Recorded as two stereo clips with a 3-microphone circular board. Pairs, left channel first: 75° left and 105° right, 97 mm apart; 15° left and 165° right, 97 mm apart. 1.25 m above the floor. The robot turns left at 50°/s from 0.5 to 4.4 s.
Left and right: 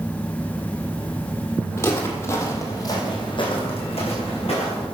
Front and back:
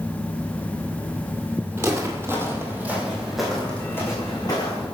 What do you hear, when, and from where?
1.8 s footsteps: 135° left, 2 m; by 4.8 s 70° left, 5.5 m